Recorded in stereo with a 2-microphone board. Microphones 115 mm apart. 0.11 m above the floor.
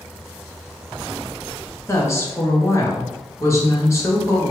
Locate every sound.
1.9 s a woman speaking: 25° left (ahead or behind), 1.2 m